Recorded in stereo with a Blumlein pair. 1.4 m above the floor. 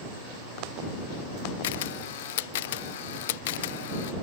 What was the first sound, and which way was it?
A camera shutter, 55° left.